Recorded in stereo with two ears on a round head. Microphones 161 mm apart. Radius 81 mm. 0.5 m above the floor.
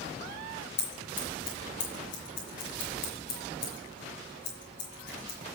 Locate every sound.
0.8 s scissors: 65° left (ahead or behind), 5 m